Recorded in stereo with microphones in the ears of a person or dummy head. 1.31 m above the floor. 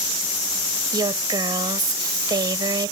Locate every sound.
0.9 s a woman speaking: 25° right (ahead or behind)